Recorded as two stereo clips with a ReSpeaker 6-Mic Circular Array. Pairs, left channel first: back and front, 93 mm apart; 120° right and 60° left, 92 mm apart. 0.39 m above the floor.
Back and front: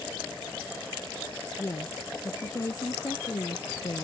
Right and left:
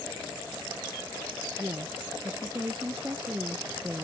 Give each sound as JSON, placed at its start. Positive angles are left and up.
{"t": 1.6, "sound": "a woman speaking", "azimuth_deg": 120}